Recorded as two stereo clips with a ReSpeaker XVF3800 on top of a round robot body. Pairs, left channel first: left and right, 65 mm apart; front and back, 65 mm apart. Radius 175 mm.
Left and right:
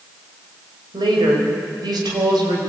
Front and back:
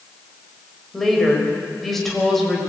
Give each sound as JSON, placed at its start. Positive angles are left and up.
{"t": 0.9, "sound": "a woman speaking", "azimuth_deg": -85, "distance_m": 5.0}